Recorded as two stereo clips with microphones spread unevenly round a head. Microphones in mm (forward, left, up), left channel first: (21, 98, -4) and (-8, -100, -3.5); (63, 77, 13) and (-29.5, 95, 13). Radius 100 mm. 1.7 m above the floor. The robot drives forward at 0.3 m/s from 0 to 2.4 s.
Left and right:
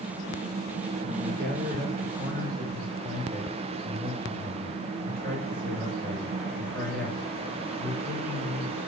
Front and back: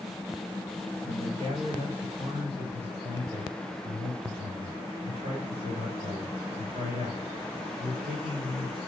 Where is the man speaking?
145° right, 7 m.